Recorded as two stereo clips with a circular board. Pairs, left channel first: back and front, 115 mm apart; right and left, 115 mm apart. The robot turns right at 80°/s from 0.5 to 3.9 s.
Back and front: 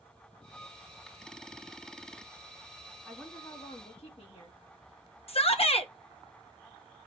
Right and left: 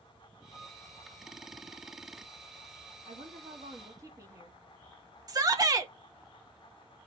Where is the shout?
150° left, 1.4 m.